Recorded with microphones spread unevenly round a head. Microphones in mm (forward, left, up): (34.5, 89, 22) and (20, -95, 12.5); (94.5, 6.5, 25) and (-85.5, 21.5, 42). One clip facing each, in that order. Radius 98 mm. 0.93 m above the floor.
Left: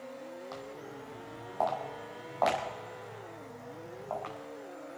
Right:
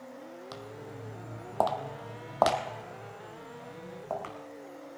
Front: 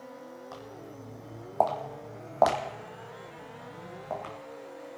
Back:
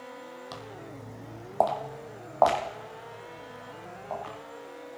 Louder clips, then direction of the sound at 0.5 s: Even, back 1 dB; 145° right.